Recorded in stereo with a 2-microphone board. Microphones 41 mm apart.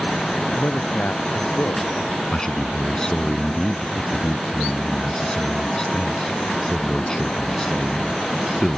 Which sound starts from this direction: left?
A man speaking, at 0.6 s.